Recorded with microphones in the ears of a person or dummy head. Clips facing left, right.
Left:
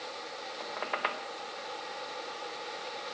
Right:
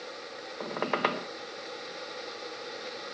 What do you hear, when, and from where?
0.6 s a squeak: 60° right (ahead or behind)